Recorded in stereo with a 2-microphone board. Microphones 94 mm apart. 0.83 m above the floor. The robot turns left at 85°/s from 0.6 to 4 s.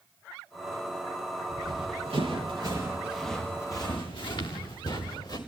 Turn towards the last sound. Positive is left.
turn(degrees=50)  # may be behind; listen again after turning